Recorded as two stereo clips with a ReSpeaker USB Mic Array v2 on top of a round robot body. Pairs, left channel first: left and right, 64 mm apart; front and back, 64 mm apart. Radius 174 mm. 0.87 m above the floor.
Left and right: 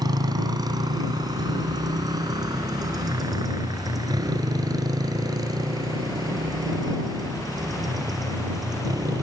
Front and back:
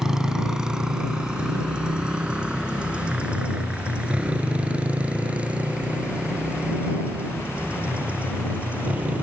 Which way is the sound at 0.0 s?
100° right.